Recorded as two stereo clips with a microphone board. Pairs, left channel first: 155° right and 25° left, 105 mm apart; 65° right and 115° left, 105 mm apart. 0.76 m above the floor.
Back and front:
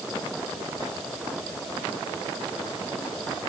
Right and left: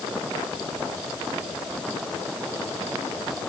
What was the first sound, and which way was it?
Only background noise.